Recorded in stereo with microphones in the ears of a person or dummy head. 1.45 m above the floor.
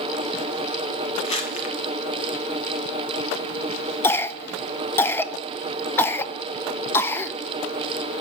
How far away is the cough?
About 0.8 m.